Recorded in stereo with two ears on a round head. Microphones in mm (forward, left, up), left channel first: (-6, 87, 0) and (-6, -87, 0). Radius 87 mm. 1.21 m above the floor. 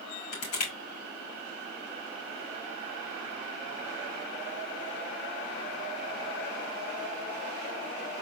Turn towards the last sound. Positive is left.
turn(degrees=85)